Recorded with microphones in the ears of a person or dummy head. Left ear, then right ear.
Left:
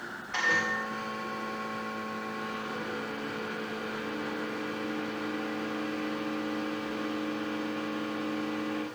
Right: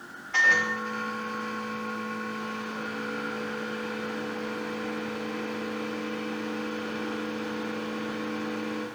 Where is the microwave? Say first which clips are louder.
Right 6 dB; 10° left (ahead or behind), 4 m.